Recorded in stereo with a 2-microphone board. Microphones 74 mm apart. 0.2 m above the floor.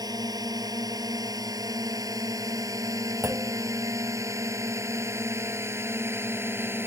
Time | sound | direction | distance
0.0 | a drone | 60° right (ahead or behind) | ?
3.2 | a clunk | 30° right (ahead or behind) | ?